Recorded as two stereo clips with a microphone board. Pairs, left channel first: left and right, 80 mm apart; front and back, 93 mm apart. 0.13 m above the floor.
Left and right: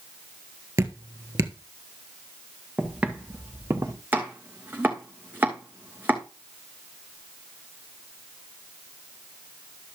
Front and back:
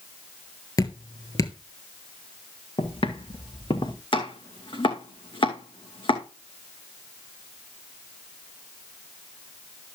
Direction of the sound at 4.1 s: 25° right.